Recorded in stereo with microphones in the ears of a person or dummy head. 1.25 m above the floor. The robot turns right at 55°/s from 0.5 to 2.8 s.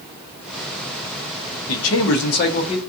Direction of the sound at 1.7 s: 85° left.